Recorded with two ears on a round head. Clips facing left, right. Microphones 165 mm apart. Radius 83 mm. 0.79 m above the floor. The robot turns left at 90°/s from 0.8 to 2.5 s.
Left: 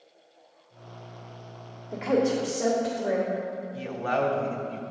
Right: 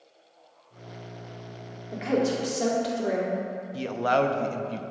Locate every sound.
1.9 s a woman speaking: 5° right, 1.8 m; by 3.3 s 55° right, 1.8 m
3.7 s a man speaking: 50° right (ahead or behind), 0.6 m